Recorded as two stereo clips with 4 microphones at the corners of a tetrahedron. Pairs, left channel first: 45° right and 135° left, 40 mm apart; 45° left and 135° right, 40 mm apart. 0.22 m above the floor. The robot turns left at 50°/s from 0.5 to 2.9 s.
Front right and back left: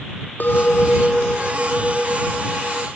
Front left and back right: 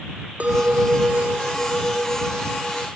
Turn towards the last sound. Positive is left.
turn(degrees=155)